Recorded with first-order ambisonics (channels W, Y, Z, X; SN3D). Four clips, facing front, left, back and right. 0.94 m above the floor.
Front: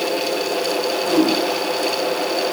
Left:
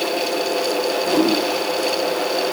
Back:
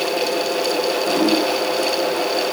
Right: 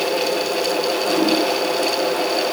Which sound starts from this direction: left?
A whoosh, at 1.0 s.